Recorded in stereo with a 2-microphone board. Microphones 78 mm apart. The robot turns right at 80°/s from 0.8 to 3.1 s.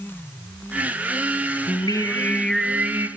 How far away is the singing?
About 1.1 m.